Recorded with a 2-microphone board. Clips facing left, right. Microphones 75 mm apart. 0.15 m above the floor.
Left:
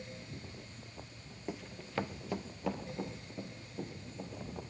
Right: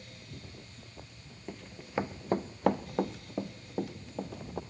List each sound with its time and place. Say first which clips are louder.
1.5 s running footsteps: right 1 dB; 10° left (ahead or behind), 1.1 m; by 4.6 s 80° right, 3 m